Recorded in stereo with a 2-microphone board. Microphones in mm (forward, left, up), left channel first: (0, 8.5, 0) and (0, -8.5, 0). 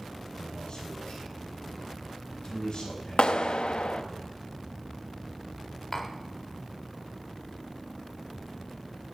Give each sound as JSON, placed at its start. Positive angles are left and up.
{"t": 0.4, "sound": "a man speaking", "side_deg": 60, "distance_m": 7.5}
{"t": 3.2, "sound": "a clap", "side_deg": 80, "distance_m": 0.6}
{"t": 5.9, "sound": "tapping", "side_deg": 25, "distance_m": 1.7}